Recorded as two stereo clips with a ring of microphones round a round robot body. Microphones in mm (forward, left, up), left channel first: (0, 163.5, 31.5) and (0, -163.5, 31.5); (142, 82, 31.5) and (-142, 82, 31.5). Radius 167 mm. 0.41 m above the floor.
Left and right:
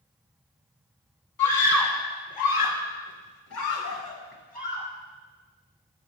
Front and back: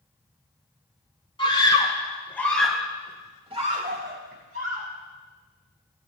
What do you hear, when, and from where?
1.4 s a scream: 70° left, 5 m; by 4.9 s 165° left, 3 m